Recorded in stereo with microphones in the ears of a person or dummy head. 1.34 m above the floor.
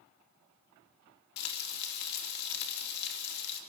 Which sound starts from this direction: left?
Frying, at 1.4 s.